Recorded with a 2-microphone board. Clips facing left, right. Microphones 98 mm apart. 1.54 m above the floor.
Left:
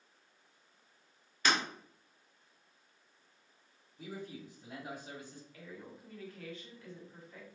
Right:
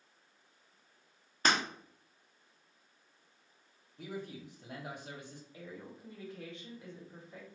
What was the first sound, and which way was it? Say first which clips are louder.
Breaking glass: right 1 dB; 40° right (ahead or behind).